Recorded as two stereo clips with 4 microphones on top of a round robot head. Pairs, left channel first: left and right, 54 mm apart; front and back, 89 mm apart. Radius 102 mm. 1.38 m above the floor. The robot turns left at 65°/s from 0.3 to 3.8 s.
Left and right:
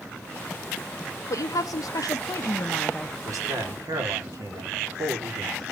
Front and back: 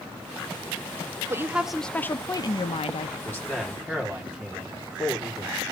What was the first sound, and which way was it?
A woman speaking, 120° left.